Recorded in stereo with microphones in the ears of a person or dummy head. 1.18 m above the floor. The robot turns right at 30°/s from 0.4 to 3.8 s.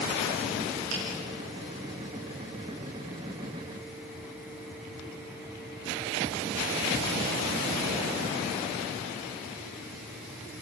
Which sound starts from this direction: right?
A finger snap, at 0.9 s.